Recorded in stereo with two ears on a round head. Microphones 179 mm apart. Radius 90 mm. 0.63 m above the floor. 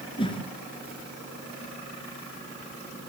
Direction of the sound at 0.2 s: 25° left (ahead or behind).